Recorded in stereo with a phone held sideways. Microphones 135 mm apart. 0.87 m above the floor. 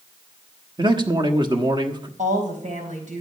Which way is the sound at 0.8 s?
35° right (ahead or behind).